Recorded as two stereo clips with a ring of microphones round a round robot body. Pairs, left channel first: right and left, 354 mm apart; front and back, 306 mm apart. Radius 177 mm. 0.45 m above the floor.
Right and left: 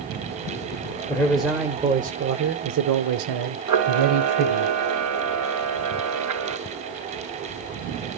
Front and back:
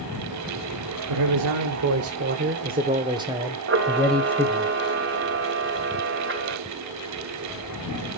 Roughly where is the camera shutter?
Behind left.